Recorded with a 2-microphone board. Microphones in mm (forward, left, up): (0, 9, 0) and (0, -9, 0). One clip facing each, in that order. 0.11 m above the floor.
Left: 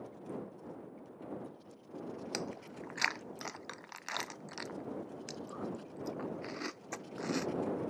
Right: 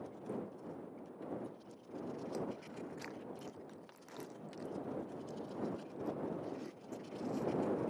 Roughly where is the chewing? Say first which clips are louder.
Left 1 dB; left.